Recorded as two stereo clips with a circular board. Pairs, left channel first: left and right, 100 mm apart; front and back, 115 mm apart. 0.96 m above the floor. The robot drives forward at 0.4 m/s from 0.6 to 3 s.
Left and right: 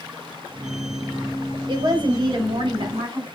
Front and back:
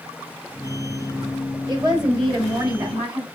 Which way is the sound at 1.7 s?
130° right.